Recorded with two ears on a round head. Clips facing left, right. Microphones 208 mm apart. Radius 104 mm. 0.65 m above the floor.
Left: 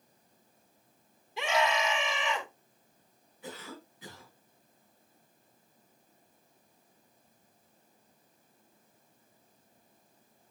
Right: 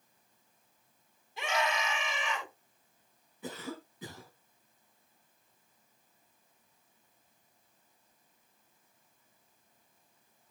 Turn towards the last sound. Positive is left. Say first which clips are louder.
# right 4 dB
turn(degrees=-85)